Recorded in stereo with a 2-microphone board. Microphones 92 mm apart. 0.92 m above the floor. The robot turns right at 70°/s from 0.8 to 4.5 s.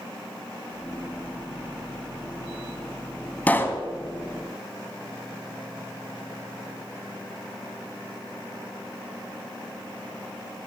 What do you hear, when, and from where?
3.5 s a pop: 15° left (ahead or behind), 1.1 m; by 3.9 s 35° left (ahead or behind), 1.1 m